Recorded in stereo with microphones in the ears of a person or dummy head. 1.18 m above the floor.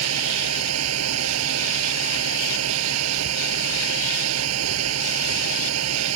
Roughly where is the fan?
Right.